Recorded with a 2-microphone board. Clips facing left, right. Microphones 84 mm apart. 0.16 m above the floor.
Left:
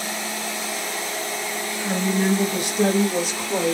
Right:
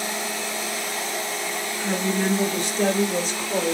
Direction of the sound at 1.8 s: Centre (ahead or behind).